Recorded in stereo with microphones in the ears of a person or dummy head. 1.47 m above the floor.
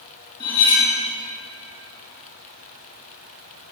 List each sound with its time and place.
0.4 s cutlery clinking: 20° left (ahead or behind), 1.4 m